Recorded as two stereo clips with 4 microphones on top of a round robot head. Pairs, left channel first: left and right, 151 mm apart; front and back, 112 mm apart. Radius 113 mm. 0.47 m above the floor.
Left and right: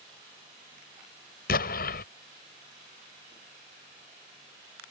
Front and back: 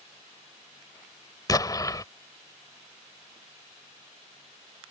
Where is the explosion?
60° left.